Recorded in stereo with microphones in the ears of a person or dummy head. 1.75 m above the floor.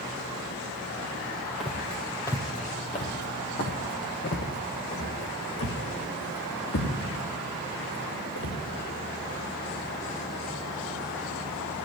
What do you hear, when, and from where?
1.6 s footsteps: centre (ahead or behind), 3.5 m; by 8.6 s 80° left, 9.5 m